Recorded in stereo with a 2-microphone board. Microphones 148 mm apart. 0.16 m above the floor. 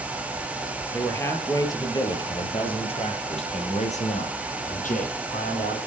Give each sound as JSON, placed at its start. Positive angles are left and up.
{"t": 0.9, "sound": "a man speaking", "side_deg": 15, "distance_m": 3.5}